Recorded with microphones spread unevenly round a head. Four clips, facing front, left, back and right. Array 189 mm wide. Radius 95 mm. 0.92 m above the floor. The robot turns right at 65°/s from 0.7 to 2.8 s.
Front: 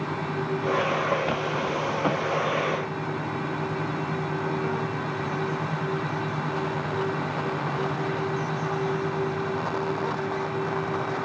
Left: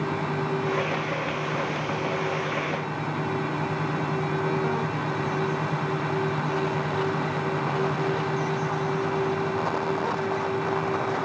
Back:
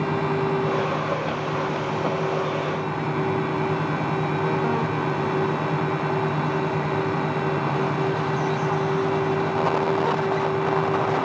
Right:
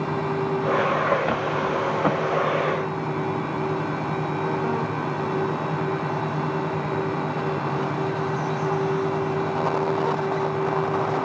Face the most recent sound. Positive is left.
No sound to turn to.